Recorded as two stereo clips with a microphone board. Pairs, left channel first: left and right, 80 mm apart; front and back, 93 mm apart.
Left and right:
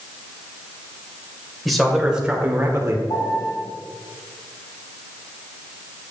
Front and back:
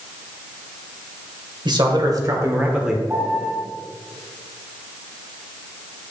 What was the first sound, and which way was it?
A man speaking, straight behind.